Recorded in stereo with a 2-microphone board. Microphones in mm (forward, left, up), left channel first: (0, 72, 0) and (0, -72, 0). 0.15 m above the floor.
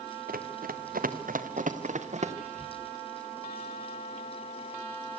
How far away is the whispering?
About 3.5 m.